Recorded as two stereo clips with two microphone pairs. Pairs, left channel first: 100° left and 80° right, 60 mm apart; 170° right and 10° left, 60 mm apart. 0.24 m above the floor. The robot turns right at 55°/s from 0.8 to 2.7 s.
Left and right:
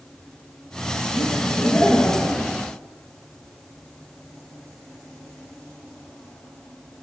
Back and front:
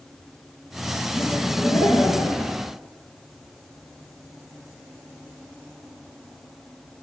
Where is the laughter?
115° left, 3.5 m; by 2.6 s 165° right, 3.5 m.